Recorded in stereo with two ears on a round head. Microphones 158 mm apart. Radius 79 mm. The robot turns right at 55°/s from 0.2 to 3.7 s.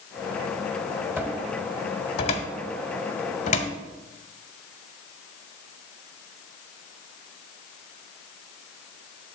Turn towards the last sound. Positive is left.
turn(degrees=40)  # may be behind; listen again after turning